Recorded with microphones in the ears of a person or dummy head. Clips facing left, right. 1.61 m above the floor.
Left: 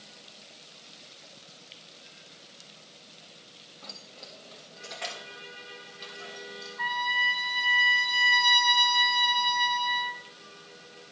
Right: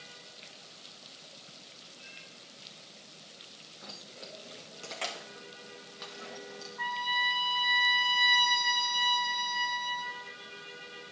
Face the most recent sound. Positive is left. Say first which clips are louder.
# left 2 dB
turn(degrees=10)  # may be behind; listen again after turning